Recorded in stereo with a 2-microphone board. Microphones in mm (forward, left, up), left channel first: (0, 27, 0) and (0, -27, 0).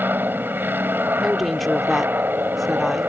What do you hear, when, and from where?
0.0 s an aircraft: 40° right (ahead or behind)
1.2 s a woman speaking: centre (ahead or behind)